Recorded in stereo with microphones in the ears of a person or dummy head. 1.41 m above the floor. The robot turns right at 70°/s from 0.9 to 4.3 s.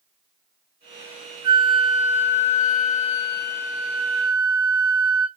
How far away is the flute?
About 1.7 m.